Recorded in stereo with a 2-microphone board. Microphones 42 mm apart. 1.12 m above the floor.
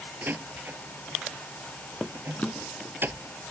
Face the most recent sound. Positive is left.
turn(degrees=40)  # may be behind; listen again after turning